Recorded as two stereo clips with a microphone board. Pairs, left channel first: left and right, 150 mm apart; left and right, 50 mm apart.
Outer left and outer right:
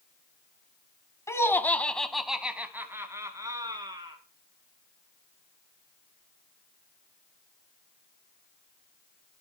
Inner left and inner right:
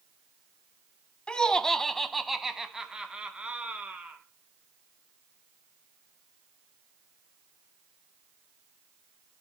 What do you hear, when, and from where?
1.3 s laughter: 20° left (ahead or behind), 1.1 m; by 4.2 s 30° right (ahead or behind), 1.6 m